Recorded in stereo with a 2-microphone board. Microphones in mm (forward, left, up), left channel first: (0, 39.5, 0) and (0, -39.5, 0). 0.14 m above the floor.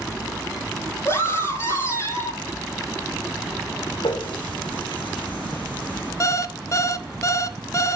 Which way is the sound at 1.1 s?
35° left (ahead or behind).